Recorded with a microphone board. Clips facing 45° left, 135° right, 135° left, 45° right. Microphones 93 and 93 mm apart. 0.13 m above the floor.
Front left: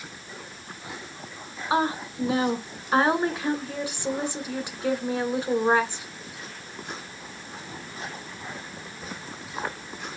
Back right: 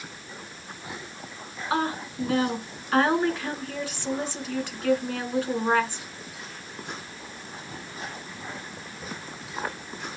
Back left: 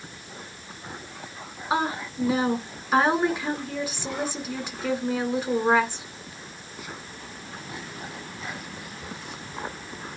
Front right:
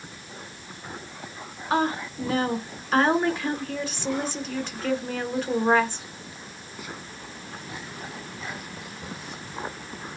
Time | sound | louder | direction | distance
1.7 | a woman speaking | front left 2 dB, front right 2 dB | 80° left | 1.1 m